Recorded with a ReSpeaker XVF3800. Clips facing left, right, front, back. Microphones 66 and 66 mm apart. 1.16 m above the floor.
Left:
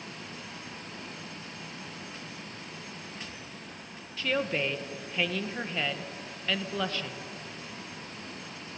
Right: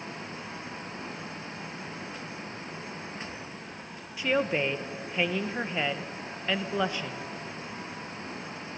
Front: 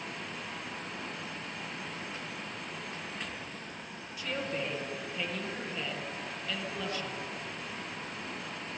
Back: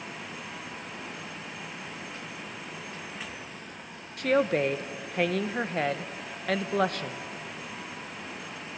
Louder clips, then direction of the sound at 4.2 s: Right 3 dB, back 11 dB; 160° right.